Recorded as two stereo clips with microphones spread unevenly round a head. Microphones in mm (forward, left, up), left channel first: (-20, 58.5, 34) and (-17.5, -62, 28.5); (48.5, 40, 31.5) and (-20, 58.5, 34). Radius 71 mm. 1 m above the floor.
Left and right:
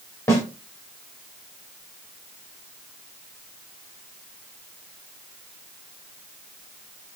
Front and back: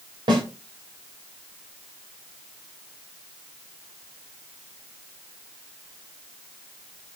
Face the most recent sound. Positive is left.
turn(degrees=160)